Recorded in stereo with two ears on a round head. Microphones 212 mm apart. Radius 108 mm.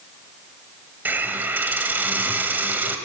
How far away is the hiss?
About 1.2 m.